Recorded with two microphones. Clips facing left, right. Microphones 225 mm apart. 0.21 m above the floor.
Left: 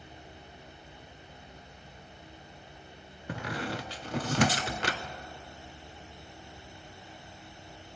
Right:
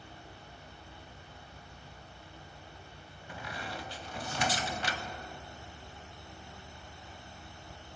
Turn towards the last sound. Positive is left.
turn(degrees=80)